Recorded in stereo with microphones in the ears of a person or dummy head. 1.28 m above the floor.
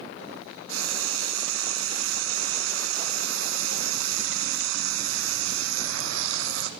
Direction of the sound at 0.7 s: 80° right.